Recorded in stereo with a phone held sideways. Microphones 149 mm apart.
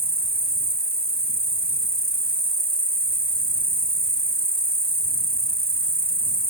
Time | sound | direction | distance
0.0 | an insect | 85° right | ?